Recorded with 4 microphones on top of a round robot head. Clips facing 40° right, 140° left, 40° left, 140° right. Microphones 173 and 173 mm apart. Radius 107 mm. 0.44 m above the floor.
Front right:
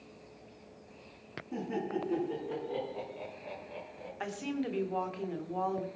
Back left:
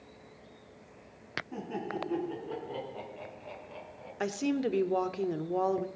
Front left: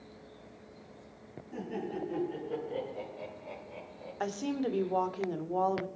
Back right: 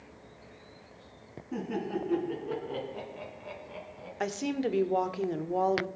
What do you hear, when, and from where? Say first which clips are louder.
1.5 s laughter: front right 3 dB, back right 4 dB; 120° right, 6.5 m; by 4.1 s 130° right, 7.5 m
4.2 s a woman speaking: back left 6 dB, back right 2 dB; 155° left, 1.4 m